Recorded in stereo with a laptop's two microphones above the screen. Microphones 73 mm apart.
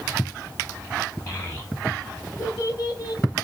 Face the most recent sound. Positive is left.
turn(degrees=55)  # may be behind; listen again after turning